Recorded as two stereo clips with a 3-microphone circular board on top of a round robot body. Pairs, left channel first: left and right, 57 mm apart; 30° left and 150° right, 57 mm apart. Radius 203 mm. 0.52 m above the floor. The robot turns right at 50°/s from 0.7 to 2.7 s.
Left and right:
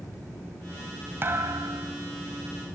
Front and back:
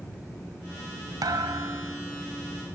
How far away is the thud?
About 2 m.